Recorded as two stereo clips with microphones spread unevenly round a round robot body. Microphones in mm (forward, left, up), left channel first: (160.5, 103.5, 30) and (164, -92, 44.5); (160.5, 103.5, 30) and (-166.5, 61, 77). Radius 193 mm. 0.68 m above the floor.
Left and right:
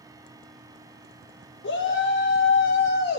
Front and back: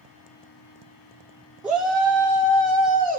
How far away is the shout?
About 2 m.